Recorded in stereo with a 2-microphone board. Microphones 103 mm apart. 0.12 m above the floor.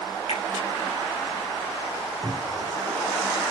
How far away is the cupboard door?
About 5 m.